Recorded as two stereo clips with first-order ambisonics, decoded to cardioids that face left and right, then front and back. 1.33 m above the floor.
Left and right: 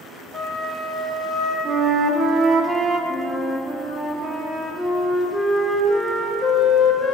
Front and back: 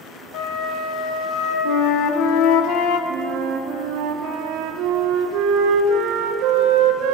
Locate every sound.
0.3 s a flute: straight ahead, 1.2 m
1.6 s a flute: 20° right, 0.5 m
3.1 s a flute: 170° left, 0.5 m